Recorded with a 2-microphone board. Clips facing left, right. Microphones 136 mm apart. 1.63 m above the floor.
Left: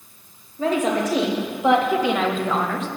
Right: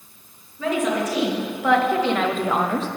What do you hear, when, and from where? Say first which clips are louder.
0.6 s a woman speaking: left 1 dB; 35° left (ahead or behind), 1.6 m; by 2.9 s 35° right (ahead or behind), 0.6 m